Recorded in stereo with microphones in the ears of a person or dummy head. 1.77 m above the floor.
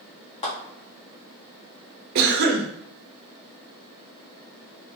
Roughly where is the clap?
Left.